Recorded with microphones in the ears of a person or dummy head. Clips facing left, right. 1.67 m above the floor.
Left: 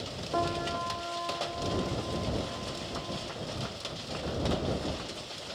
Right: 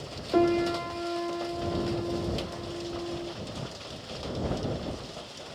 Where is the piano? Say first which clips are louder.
Right 9 dB; 45° right (ahead or behind).